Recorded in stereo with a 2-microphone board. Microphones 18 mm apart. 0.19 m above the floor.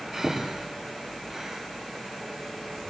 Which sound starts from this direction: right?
Breathing, at 0.1 s.